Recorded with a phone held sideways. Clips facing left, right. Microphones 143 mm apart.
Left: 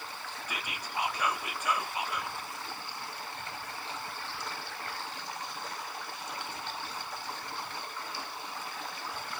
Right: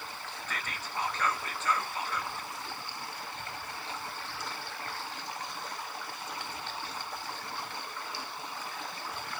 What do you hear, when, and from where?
0.5 s whispering: 10° left (ahead or behind), 0.6 m